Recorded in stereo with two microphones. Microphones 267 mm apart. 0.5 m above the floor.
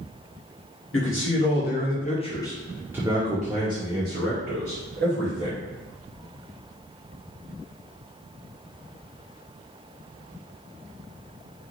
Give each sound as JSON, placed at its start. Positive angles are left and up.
{"t": 0.9, "sound": "a man speaking", "side_deg": 50, "distance_m": 1.1}